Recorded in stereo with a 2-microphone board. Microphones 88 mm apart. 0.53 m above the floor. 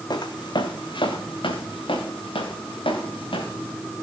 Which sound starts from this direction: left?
Footsteps, at 0.1 s.